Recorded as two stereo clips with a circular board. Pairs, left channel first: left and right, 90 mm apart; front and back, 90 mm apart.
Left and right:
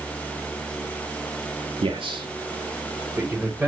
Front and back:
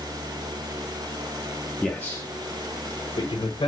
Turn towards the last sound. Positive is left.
turn(degrees=-10)